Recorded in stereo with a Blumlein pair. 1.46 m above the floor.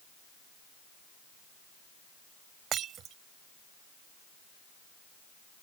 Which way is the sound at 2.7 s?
30° right.